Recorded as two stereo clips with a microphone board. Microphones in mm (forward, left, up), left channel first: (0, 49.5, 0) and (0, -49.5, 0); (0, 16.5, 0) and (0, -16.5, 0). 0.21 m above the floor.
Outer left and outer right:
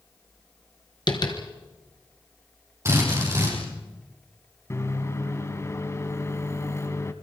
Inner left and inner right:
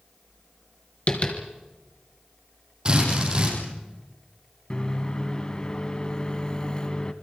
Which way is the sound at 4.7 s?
30° left (ahead or behind).